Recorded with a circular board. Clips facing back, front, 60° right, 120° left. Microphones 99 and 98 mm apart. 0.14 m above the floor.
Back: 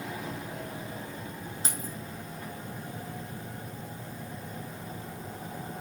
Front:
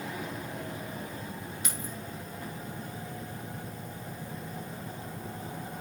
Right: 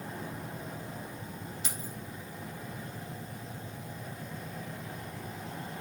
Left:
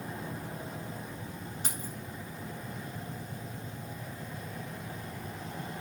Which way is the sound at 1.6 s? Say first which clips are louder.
Back 2 dB, left 1 dB; 140° left.